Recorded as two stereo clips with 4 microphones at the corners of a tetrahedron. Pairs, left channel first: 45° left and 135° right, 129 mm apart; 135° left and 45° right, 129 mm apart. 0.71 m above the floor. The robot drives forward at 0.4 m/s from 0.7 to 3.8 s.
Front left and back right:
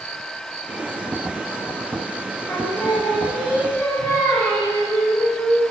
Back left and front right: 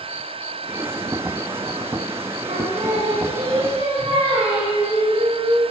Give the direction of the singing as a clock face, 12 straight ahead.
1 o'clock.